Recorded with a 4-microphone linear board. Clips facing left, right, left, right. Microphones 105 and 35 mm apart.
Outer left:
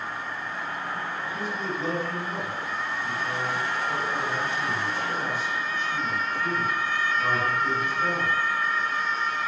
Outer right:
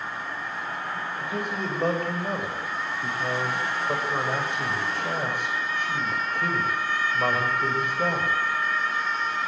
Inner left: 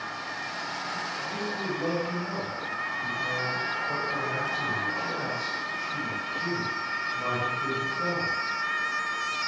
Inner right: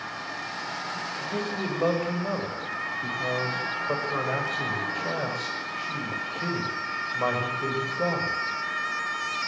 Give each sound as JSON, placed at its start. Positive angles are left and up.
{"t": 1.2, "sound": "a man speaking", "side_deg": -55, "distance_m": 7.0}